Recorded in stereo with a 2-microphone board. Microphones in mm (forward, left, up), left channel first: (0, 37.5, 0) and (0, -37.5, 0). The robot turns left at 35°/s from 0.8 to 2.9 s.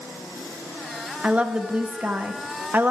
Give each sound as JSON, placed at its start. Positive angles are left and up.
{"t": 1.2, "sound": "a woman speaking", "side_deg": -15, "distance_m": 0.6}